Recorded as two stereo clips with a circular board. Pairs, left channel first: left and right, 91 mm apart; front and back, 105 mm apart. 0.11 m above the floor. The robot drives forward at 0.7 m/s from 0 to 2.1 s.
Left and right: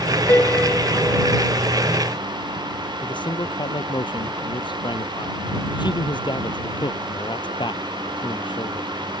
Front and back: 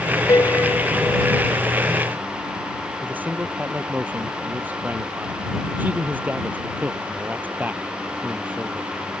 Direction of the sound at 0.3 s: 35° left.